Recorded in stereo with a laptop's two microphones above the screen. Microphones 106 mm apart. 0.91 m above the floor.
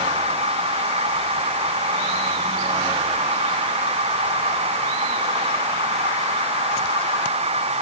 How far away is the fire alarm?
I don't hear a fire alarm.